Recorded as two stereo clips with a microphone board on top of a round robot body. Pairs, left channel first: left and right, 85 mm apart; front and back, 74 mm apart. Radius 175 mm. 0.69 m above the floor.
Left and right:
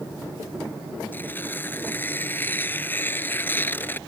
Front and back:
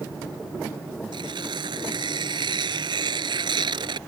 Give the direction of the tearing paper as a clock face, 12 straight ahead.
7 o'clock.